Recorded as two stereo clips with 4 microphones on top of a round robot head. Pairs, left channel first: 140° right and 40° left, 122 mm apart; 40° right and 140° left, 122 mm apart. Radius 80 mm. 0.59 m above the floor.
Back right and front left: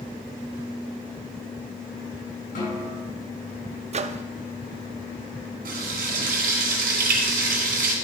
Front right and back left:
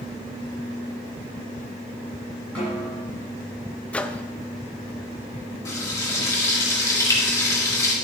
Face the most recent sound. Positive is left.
turn(degrees=25)